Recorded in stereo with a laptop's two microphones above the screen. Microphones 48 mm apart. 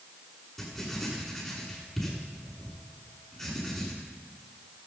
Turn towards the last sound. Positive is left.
turn(degrees=5)  # may be behind; listen again after turning